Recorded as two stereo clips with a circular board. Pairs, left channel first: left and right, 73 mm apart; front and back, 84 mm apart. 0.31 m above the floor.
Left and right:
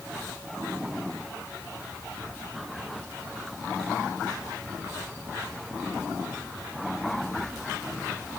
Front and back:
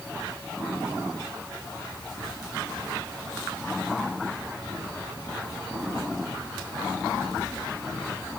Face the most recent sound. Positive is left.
No sound to turn to.